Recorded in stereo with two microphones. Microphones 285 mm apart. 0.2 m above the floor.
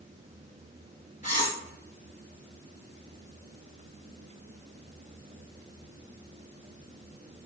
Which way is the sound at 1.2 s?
25° left (ahead or behind).